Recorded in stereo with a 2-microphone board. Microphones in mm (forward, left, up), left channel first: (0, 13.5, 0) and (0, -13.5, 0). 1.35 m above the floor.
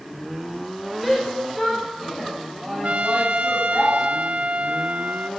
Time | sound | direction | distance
1.0 | a shout | centre (ahead or behind) | 6 m
2.8 | a trumpet | 55° right (ahead or behind) | 1.5 m